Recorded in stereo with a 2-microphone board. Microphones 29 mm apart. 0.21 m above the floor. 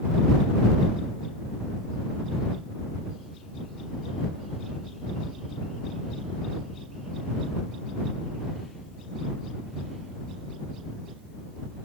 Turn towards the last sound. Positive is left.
No sound to turn to.